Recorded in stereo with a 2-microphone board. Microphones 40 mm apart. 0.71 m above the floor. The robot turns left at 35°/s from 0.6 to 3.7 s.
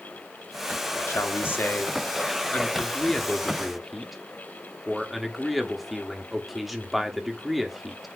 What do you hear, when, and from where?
1.1 s a man speaking: 90° left, 1.2 m; by 8.1 s straight ahead, 1.2 m